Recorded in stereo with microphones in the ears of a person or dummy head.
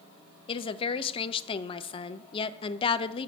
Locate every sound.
0.5 s a woman speaking: 35° left (ahead or behind), 0.7 m